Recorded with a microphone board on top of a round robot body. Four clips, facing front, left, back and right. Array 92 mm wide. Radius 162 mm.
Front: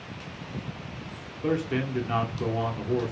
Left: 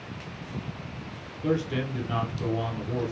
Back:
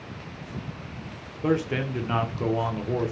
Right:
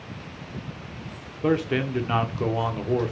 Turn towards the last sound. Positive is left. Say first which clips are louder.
# right 4 dB, back 2 dB
turn(degrees=-105)